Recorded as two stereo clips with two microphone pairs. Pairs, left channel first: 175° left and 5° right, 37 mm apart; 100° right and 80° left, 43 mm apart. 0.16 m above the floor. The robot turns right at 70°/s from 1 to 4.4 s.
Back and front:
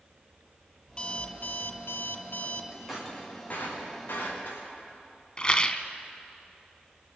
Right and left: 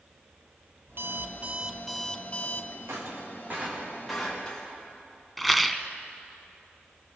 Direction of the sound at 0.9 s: 110° left.